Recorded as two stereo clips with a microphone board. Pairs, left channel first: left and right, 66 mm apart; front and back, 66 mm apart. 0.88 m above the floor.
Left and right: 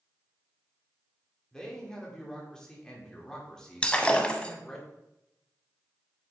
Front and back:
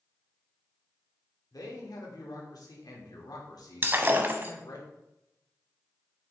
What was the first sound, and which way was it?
A man speaking, 10° left.